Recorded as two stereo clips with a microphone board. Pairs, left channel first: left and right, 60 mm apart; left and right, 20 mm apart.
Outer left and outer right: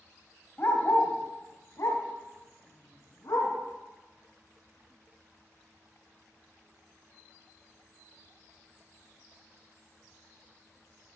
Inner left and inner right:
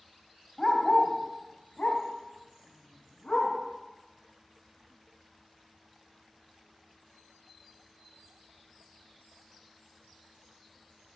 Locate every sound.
0.6 s a dog barking: 40° left (ahead or behind), 1.2 m; by 3.5 s 85° left, 2.5 m